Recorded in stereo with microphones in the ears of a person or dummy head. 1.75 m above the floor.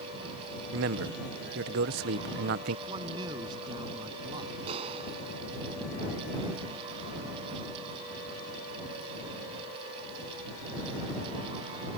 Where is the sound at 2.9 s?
25° right (ahead or behind).